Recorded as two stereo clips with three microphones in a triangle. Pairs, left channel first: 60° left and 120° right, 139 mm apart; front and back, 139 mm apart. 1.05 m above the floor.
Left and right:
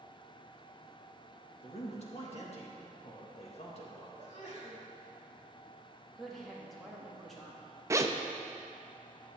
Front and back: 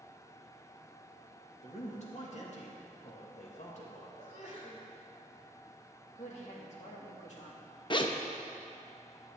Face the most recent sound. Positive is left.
turn(degrees=-50)